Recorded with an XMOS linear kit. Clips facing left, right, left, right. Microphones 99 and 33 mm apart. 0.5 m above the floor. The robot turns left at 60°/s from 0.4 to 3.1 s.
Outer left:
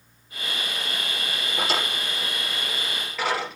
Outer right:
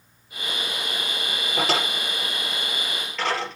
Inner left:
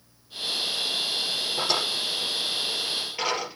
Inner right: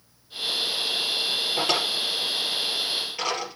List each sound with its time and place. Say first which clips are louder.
1.6 s a drawer: outer right 3 dB, even; 85° right, 4.5 m; by 3.6 s 10° left (ahead or behind), 4.5 m